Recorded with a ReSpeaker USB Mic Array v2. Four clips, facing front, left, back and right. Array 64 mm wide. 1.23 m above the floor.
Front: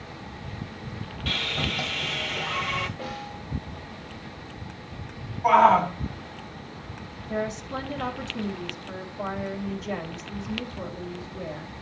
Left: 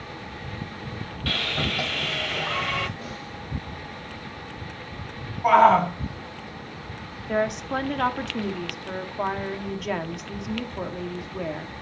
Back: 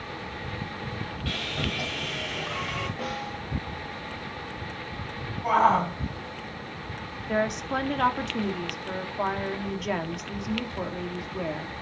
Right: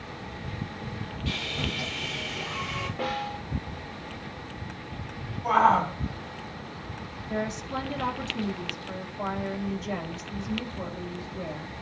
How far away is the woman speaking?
About 2 m.